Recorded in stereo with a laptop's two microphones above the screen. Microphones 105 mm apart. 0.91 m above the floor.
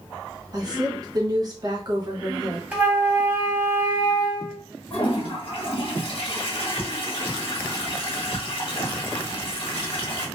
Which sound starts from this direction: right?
A woman speaking, at 0.5 s.